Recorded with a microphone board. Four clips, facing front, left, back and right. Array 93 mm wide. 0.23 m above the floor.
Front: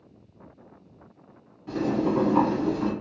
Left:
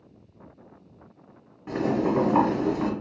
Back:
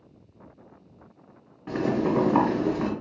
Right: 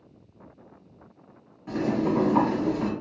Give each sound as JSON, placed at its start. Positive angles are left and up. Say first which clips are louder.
{"t": 1.7, "sound": "boiling", "louder": "left 1 dB, even", "azimuth_deg": 145, "distance_m": 1.5}